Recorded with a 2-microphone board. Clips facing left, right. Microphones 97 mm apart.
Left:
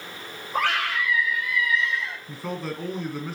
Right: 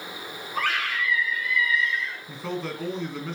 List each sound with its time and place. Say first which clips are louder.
0.5 s a scream: left 3 dB; 65° left (ahead or behind), 6.5 m
2.3 s a man speaking: right 1 dB; 5° left (ahead or behind), 1.9 m